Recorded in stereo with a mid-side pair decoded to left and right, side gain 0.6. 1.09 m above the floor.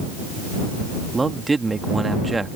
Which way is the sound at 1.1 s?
20° right.